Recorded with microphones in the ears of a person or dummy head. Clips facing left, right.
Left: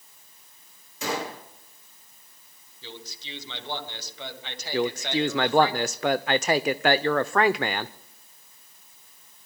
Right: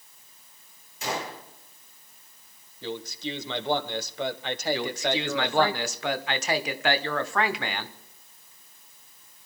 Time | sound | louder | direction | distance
1.0 | a gunshot | left 2 dB | 85° left | 6.5 m
2.8 | a man speaking | right 10 dB | 55° right (ahead or behind) | 1.3 m
4.7 | a man speaking | left 7 dB | 50° left (ahead or behind) | 0.7 m